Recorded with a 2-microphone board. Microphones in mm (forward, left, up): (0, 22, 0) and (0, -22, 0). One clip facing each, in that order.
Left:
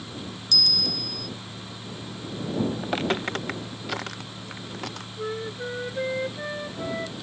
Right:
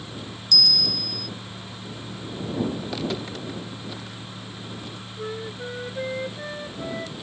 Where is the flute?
10° left (ahead or behind).